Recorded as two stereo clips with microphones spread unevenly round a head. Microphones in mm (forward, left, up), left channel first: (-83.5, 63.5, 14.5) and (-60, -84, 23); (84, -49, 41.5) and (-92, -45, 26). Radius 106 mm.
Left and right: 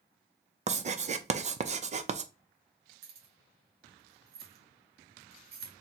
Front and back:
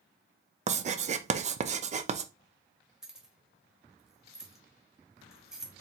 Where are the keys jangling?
95° right, 1.3 m.